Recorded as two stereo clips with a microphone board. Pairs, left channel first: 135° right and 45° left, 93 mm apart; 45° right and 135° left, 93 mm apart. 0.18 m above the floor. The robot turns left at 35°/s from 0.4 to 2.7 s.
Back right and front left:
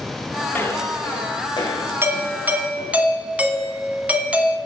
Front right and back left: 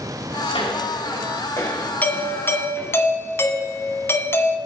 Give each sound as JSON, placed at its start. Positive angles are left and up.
{"t": 0.5, "sound": "footsteps", "azimuth_deg": -65, "distance_m": 7.0}
{"t": 2.0, "sound": "a doorbell", "azimuth_deg": 10, "distance_m": 1.7}